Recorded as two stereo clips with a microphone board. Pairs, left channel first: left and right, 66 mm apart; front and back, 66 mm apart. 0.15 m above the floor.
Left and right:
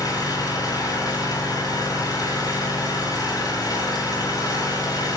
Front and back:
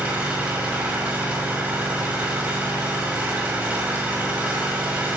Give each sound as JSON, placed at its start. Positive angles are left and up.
{"t": 0.0, "sound": "an engine running", "azimuth_deg": 110, "distance_m": 6.0}